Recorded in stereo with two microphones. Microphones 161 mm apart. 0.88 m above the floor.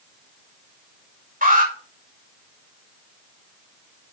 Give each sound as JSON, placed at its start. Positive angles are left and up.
{"t": 1.4, "sound": "an alarm", "side_deg": -60, "distance_m": 5.0}